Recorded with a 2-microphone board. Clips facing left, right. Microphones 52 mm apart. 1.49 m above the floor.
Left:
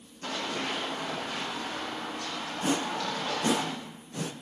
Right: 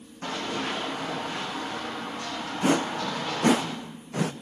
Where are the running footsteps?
65° right (ahead or behind), 5.5 m.